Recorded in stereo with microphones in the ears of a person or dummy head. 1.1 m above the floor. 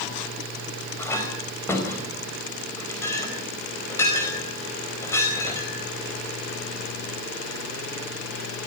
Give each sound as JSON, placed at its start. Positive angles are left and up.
{"t": 1.0, "sound": "a clink", "side_deg": 15, "distance_m": 4.5}